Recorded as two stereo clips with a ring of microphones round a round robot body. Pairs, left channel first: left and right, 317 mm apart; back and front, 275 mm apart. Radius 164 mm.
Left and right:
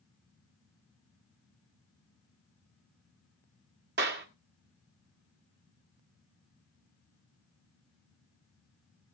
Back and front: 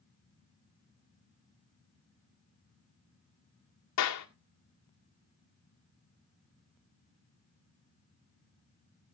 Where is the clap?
145° right, 1.8 m.